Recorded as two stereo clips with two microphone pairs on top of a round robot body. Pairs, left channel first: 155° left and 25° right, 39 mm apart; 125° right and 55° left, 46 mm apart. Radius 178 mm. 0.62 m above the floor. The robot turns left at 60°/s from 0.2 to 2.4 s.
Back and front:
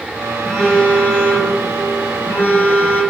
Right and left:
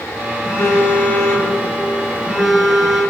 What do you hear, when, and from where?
0.4 s a phone buzzing: 120° right, 2 m; by 3.0 s 125° left, 2 m